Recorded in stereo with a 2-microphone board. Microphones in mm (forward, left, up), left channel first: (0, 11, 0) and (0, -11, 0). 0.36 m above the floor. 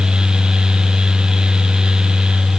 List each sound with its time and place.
Only background noise.